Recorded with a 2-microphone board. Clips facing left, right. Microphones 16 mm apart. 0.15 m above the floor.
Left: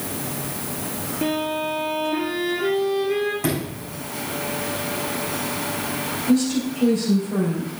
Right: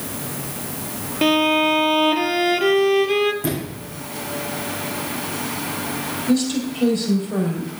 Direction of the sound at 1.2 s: 70° right (ahead or behind).